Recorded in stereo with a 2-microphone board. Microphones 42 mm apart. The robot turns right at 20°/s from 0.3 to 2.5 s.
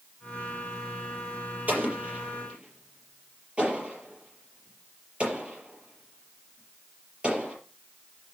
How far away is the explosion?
About 5.5 m.